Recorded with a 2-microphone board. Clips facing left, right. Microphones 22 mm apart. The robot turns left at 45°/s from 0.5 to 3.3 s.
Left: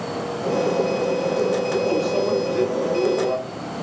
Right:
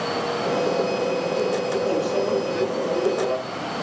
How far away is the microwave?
About 1.5 m.